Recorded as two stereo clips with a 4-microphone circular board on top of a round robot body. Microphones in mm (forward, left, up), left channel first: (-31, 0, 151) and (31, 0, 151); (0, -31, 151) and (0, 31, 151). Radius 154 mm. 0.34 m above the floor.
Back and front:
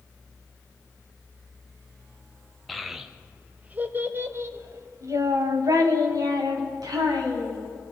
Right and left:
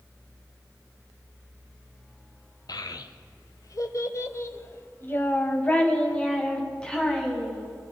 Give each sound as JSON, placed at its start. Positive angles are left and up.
{"t": 2.7, "sound": "a child speaking", "azimuth_deg": -90, "distance_m": 1.2}